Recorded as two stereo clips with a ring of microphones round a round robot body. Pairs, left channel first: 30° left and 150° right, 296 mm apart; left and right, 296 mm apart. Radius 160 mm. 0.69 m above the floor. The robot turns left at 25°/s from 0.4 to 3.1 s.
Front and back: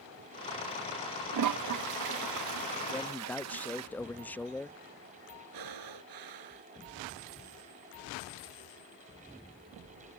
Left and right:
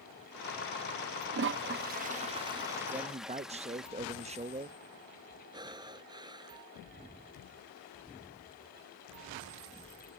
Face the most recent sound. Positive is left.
turn(degrees=-165)